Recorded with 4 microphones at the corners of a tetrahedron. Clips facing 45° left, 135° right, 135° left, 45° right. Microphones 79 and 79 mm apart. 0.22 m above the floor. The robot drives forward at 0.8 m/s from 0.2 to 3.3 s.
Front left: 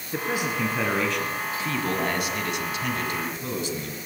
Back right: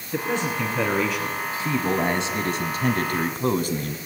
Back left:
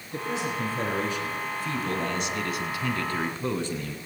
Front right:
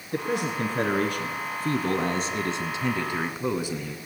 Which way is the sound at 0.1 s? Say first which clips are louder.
Back right 2 dB, front right 3 dB; 35° right.